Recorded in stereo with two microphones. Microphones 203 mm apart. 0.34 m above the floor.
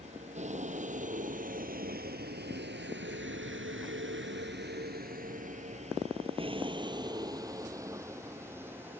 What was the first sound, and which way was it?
A vehicle, 35° right (ahead or behind).